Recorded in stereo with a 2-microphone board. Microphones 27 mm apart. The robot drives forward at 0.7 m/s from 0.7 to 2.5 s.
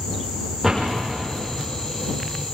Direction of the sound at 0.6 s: Centre (ahead or behind).